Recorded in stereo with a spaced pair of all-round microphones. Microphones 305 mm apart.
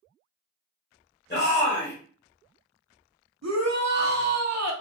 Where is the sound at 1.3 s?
35° left (ahead or behind), 1.2 m.